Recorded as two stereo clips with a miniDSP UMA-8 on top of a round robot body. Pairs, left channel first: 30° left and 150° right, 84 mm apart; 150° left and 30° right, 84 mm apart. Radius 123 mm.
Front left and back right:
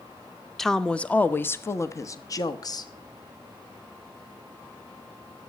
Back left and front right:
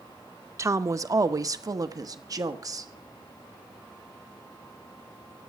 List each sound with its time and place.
0.6 s a woman speaking: 55° right, 1.1 m; by 2.9 s 5° left, 1.6 m